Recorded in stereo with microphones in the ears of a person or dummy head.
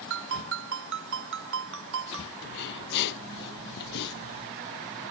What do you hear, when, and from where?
0.1 s a ringtone: 70° right (ahead or behind)
2.4 s breathing: 60° left (ahead or behind)